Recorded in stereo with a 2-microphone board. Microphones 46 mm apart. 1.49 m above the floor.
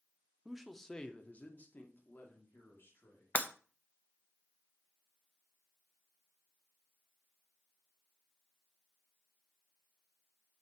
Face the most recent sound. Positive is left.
turn(degrees=40)  # may be behind; listen again after turning